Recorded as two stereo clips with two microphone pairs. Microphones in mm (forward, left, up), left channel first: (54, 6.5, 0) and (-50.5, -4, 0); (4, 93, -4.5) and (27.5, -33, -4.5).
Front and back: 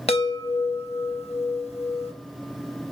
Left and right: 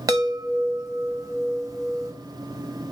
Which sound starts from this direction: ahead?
A chime, at 0.1 s.